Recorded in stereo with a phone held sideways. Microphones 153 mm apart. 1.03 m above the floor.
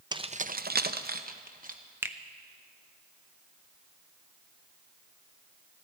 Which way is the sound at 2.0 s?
15° right (ahead or behind).